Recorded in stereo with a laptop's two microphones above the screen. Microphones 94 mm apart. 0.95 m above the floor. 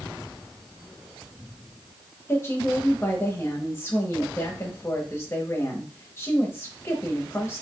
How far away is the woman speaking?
About 0.9 m.